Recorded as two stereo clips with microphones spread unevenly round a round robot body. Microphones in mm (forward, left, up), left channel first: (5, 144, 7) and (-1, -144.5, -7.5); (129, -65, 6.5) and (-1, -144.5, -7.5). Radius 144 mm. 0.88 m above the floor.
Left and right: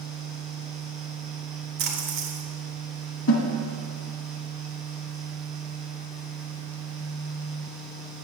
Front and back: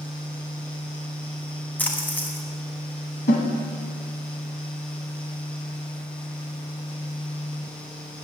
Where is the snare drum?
45° left, 1.4 m.